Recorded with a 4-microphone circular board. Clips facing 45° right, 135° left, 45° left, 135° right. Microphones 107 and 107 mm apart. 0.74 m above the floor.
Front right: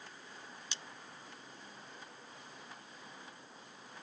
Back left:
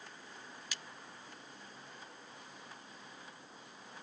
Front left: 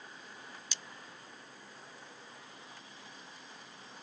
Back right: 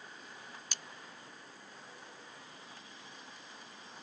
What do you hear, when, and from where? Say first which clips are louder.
0.7 s cutlery clinking: back left 1 dB, even; 105° right